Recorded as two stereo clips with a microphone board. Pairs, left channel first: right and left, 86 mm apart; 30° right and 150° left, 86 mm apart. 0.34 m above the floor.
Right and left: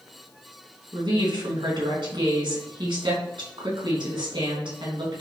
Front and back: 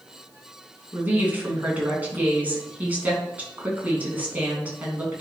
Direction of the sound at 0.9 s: 80° left.